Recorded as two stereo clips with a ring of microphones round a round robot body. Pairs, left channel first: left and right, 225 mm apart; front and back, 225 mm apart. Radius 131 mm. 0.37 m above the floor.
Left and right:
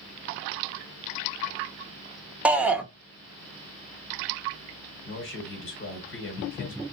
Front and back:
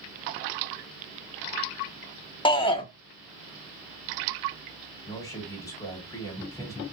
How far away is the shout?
About 0.8 m.